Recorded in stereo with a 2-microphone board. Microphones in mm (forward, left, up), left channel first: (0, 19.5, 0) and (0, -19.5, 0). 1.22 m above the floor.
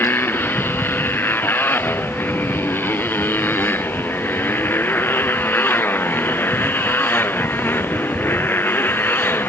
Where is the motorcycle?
65° left (ahead or behind).